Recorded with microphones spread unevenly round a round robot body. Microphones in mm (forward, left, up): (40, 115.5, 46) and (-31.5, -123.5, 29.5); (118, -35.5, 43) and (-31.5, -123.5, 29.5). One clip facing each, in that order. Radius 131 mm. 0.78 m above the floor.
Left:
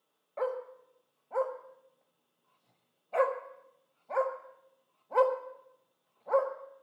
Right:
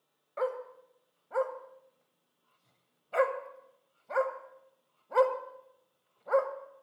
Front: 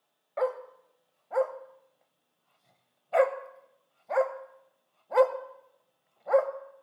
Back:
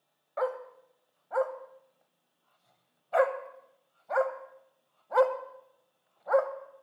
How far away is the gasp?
No gasp in this recording.